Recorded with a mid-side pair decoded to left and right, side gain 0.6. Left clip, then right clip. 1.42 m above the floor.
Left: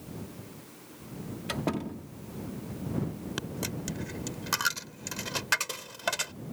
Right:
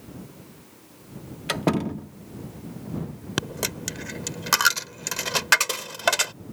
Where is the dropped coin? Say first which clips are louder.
Right 9 dB; 45° right.